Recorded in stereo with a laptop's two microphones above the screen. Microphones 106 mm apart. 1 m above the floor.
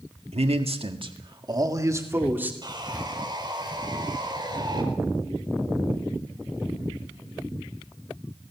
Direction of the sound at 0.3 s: 75° right (ahead or behind).